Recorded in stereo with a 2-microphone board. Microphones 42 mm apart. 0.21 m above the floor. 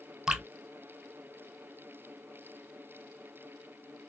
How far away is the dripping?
About 0.8 m.